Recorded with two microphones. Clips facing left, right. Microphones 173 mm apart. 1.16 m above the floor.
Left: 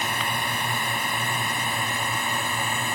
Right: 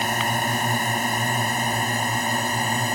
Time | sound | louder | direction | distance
0.0 | a drone | right 5 dB | 45° right (ahead or behind) | ?